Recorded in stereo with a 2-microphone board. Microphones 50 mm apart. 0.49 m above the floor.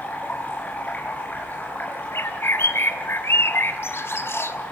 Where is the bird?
55° left (ahead or behind), 2 m.